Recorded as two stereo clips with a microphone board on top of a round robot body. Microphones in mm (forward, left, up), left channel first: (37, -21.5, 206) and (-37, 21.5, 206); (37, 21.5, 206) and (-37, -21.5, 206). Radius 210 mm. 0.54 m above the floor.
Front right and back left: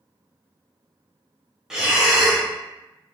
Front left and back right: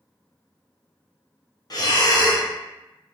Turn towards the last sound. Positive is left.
turn(degrees=65)